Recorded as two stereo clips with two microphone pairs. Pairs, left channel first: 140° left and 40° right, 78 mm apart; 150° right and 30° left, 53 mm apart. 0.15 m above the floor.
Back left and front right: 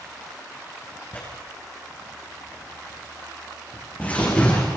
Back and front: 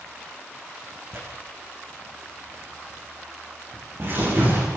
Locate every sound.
1.1 s tearing paper: 70° left, 7.5 m